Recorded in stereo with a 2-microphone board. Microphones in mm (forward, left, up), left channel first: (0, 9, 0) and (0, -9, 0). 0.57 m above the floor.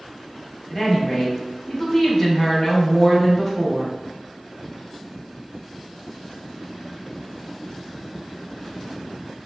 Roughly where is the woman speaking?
Centre.